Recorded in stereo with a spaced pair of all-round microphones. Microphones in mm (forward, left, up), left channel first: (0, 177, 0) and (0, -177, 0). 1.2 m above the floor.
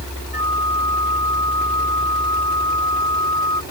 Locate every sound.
0.3 s a flute: 75° left (ahead or behind)